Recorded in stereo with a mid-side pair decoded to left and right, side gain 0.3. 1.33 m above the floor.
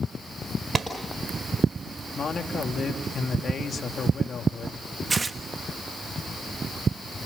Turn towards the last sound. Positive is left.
turn(degrees=-35)